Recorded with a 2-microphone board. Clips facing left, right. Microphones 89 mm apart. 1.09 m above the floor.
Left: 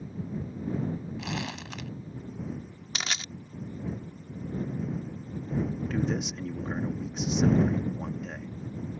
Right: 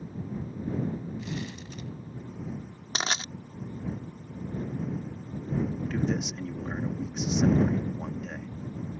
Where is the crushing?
30° right (ahead or behind).